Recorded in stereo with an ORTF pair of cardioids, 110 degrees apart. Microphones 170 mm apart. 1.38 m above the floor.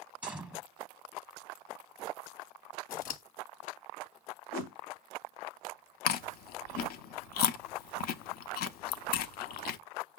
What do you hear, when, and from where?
0.2 s a gunshot: 10° right, 0.9 m
2.9 s scissors: 65° left, 1.0 m
4.5 s a whoosh: 60° left, 0.7 m
6.1 s chewing: 65° left, 0.5 m